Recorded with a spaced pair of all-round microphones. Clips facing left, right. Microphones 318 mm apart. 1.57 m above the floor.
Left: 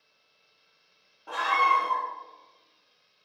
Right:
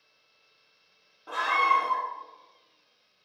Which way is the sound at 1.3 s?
5° right (ahead or behind).